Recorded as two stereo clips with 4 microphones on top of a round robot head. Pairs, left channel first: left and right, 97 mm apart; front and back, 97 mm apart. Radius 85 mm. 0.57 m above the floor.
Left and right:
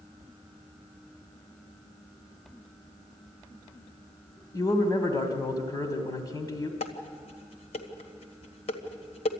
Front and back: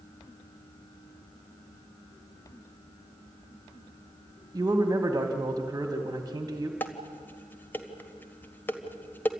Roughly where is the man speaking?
Behind left.